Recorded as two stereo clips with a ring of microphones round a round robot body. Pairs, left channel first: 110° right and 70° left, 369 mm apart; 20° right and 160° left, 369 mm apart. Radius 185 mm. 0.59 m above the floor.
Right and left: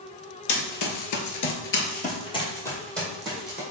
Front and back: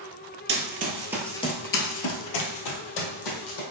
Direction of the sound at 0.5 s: 150° right.